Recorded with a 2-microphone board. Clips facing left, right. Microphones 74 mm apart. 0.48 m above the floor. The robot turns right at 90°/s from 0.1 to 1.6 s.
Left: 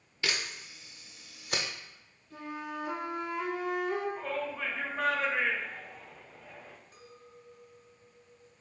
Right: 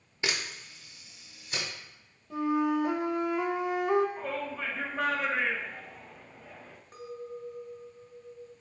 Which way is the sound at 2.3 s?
85° right.